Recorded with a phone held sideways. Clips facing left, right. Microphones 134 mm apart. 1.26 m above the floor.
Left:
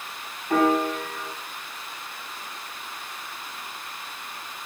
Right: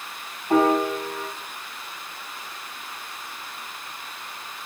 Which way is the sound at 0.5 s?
25° right (ahead or behind).